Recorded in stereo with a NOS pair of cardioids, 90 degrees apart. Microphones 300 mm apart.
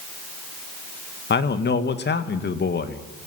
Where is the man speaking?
35° left, 2 m.